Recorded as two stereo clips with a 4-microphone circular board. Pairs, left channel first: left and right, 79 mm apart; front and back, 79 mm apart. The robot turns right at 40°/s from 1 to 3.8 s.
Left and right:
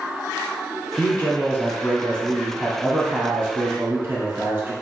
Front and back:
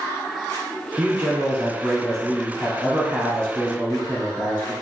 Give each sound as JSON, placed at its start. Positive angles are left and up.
{"t": 1.0, "sound": "a man speaking", "azimuth_deg": 115, "distance_m": 1.1}